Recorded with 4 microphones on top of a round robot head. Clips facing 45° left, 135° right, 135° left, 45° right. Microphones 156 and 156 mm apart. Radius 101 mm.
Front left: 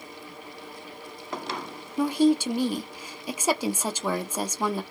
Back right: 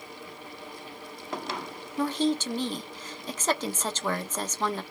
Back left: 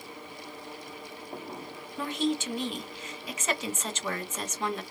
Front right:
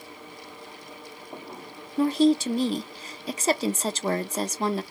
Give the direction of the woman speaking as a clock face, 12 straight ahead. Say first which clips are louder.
Front left 5 dB, front right 10 dB; 1 o'clock.